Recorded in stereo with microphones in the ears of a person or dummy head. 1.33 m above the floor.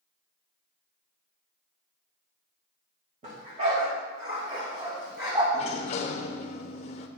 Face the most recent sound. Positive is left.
turn(degrees=30)  # may be behind; listen again after turning